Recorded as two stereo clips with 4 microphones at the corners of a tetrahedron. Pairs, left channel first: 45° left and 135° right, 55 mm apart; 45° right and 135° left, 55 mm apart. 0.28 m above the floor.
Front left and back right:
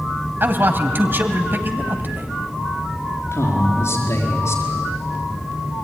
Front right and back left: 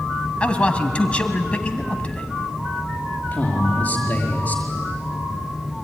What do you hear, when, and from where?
0.4 s a man speaking: 105° right, 1.8 m
3.3 s a man speaking: 20° left, 4.5 m